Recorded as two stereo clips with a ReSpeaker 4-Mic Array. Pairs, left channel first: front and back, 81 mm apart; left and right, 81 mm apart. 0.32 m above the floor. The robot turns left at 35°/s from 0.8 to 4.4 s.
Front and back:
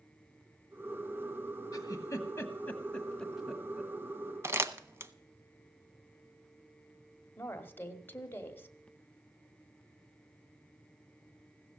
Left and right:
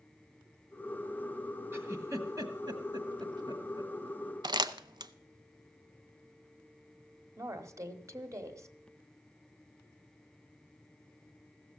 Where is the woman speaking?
55° right, 1.2 m.